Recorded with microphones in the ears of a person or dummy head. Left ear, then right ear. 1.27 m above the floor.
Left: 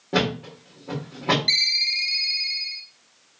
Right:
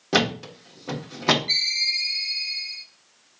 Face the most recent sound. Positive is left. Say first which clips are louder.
# left 2 dB
turn(degrees=50)  # may be behind; listen again after turning